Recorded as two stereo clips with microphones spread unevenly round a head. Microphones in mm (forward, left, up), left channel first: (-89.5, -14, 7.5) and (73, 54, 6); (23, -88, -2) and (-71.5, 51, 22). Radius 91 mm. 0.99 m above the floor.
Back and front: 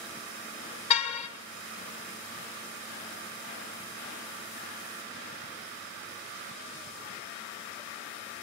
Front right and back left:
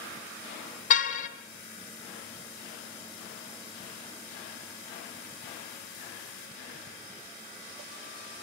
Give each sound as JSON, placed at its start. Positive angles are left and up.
{"t": 0.9, "sound": "a car horn", "azimuth_deg": -100, "distance_m": 3.5}